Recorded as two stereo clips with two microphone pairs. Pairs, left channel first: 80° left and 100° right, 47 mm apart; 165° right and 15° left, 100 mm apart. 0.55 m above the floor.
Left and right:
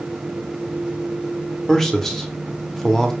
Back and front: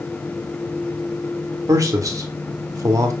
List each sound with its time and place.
1.7 s a man speaking: 5° left, 0.7 m